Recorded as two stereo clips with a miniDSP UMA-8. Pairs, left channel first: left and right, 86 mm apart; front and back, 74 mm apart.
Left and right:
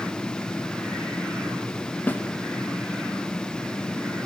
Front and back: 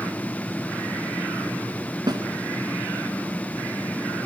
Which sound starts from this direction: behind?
A snare drum, at 2.1 s.